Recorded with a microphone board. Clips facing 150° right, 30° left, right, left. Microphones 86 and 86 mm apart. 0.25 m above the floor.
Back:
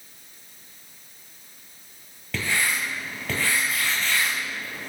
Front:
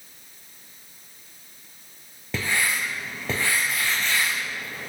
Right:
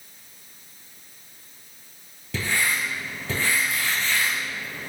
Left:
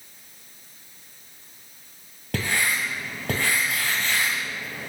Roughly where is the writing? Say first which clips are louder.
Even, even; left.